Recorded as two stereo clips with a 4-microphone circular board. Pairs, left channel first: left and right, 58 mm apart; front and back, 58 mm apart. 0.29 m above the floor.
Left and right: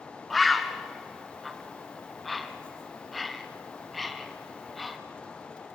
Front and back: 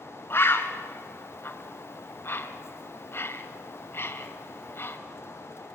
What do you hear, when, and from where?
0.3 s a bird: straight ahead, 1.3 m